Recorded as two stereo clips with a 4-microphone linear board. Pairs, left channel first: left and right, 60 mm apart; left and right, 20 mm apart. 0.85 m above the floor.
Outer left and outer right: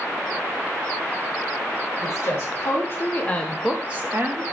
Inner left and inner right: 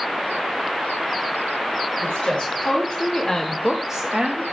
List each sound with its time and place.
2.0 s a woman speaking: 60° left (ahead or behind), 1.2 m; by 4.4 s 45° right (ahead or behind), 0.8 m